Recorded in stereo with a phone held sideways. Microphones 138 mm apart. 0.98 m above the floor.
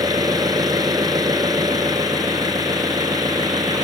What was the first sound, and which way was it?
An engine running, 30° right (ahead or behind).